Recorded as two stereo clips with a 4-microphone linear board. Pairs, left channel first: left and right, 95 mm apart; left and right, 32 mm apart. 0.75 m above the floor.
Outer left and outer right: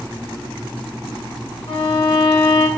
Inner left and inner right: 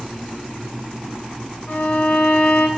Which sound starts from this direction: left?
A violin, at 1.7 s.